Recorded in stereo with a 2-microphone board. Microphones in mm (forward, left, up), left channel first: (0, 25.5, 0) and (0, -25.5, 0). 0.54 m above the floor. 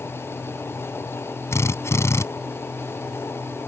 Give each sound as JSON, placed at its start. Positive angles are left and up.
{"t": 1.5, "sound": "a drill", "side_deg": 65}